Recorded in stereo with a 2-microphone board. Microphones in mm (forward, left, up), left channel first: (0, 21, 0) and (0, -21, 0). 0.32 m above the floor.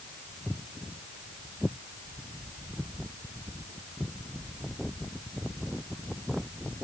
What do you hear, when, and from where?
0.5 s footsteps: 10° left (ahead or behind); by 6.4 s 25° right (ahead or behind)